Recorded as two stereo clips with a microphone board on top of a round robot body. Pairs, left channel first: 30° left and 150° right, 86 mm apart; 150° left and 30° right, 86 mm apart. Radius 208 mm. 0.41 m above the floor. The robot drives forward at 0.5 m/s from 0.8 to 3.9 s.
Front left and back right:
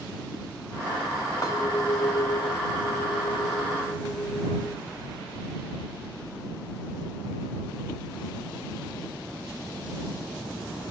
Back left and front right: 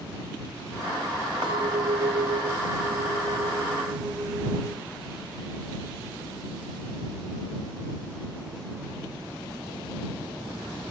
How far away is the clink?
About 1.8 m.